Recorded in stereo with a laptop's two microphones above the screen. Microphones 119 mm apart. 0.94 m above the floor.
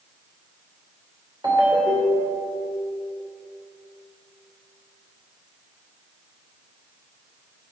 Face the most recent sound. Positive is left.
turn(degrees=-35)  # may be behind; listen again after turning